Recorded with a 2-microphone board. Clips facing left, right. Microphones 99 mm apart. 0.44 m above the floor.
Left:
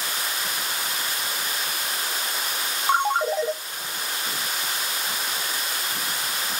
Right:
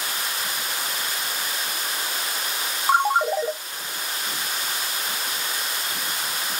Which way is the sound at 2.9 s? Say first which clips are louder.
Right 2 dB; 5° right (ahead or behind).